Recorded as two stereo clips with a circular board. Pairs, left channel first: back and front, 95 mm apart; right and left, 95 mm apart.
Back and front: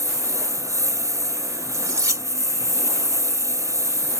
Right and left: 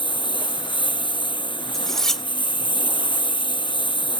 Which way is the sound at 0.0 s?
55° right.